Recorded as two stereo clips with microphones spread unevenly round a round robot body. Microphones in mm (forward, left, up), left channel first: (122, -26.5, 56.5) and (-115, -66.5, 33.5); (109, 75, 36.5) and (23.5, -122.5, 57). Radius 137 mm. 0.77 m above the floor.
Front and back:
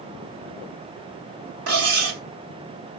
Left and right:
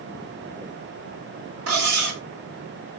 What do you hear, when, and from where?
1.7 s cutlery clinking: 145° right, 1.1 m